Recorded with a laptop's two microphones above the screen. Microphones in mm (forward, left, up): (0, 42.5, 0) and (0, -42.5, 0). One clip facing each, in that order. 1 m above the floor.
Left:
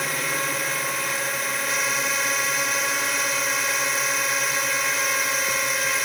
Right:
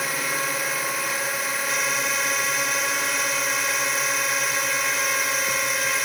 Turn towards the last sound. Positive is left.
turn(degrees=-5)  # may be behind; listen again after turning